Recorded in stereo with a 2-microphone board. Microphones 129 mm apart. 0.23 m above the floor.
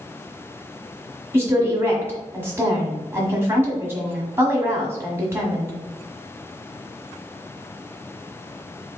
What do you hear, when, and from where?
1.3 s a woman speaking: 20° right (ahead or behind), 1.3 m